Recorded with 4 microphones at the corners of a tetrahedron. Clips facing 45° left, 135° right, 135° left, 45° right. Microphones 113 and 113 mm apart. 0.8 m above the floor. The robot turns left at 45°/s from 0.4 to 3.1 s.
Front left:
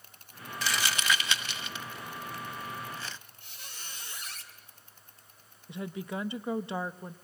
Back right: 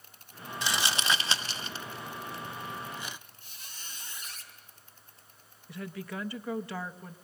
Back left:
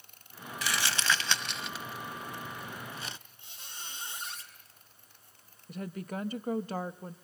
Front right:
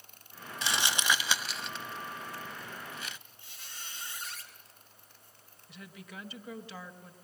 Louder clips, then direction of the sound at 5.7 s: Front left 2 dB, back left 10 dB; 110° left.